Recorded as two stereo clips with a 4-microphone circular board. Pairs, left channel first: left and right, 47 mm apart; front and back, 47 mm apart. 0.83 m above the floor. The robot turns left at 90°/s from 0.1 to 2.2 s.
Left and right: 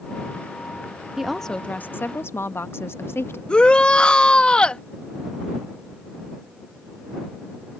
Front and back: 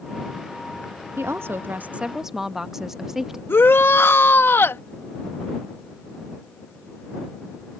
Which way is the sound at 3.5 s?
25° left.